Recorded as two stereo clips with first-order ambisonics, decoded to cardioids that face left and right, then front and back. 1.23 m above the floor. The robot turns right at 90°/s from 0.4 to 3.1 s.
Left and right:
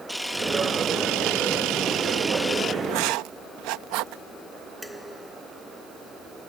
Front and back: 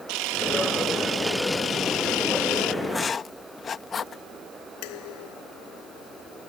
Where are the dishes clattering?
Straight ahead.